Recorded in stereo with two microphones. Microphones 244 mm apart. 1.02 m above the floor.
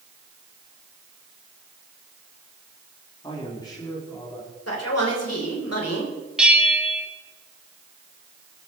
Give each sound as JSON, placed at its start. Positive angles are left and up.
{"t": 3.2, "sound": "a man speaking", "side_deg": 20, "distance_m": 2.5}
{"t": 4.7, "sound": "a man speaking", "side_deg": 85, "distance_m": 3.5}
{"t": 6.4, "sound": "a bell", "side_deg": -5, "distance_m": 1.8}